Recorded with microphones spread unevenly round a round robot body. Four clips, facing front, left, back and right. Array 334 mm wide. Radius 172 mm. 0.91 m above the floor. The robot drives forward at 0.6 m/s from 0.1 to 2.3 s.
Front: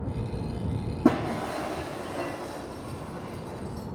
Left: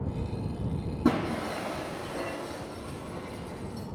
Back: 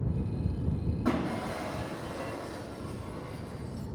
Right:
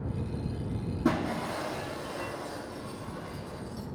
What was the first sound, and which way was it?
Breaking glass, 10° left.